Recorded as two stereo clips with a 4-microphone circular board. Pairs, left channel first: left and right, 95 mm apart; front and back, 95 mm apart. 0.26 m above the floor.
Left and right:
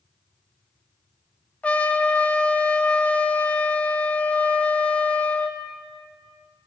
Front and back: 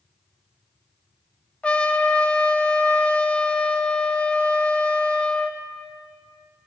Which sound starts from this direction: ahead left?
A trumpet, at 1.6 s.